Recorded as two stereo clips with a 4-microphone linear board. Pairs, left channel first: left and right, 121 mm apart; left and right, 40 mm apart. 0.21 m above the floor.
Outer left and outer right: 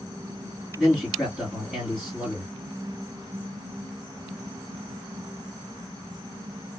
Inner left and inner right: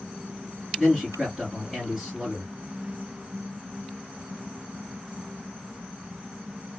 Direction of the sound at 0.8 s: Centre (ahead or behind).